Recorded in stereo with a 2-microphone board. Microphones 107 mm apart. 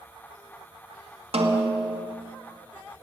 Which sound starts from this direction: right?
A snare drum, at 1.3 s.